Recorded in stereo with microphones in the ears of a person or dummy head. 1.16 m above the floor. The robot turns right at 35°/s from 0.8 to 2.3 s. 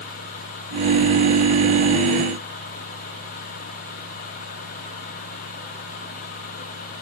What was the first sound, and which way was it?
Only background noise.